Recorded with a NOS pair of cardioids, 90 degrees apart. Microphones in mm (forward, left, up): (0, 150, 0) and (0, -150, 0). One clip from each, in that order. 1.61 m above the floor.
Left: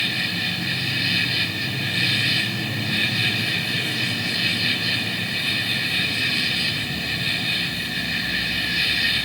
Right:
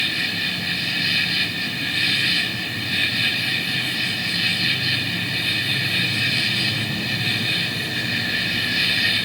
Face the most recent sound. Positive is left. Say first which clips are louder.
# right 1 dB
turn(degrees=-10)